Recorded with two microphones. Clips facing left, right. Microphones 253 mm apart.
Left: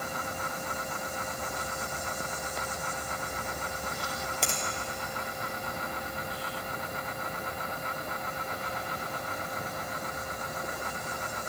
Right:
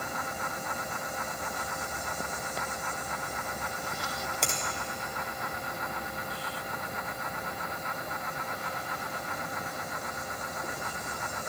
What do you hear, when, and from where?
4.4 s a finger snap: centre (ahead or behind), 2.5 m